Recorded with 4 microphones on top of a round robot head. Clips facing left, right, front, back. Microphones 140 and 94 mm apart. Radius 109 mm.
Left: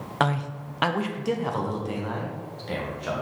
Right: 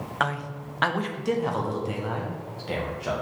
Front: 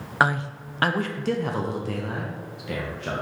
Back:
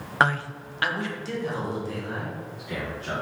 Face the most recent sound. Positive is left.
turn(degrees=-10)